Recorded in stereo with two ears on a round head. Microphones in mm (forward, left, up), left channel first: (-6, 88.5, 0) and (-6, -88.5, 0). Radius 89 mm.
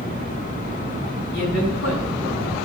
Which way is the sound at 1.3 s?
60° left (ahead or behind).